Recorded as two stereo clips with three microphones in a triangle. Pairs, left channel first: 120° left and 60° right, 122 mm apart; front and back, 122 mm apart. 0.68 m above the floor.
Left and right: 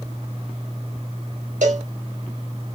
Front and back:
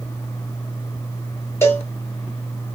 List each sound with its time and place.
1.6 s a cowbell: 70° right, 1.0 m